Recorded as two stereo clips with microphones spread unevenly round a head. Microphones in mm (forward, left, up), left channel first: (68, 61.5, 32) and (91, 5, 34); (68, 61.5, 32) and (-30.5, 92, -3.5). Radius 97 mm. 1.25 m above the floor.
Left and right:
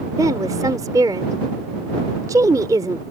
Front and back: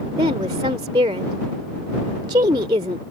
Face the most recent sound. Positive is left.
turn(degrees=-130)